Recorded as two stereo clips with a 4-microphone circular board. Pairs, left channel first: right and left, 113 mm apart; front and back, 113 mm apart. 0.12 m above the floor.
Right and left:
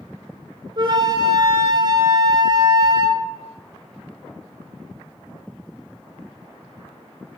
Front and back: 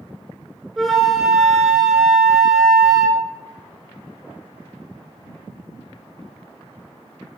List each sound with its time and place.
0.8 s a flute: 90° left, 0.6 m